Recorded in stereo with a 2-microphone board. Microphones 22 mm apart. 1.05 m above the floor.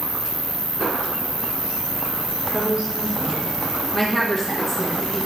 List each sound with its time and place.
0.0 s an insect: 10° left (ahead or behind), 1.1 m
2.5 s a woman speaking: 40° right (ahead or behind), 3.5 m
3.9 s a woman speaking: 15° left (ahead or behind), 1.4 m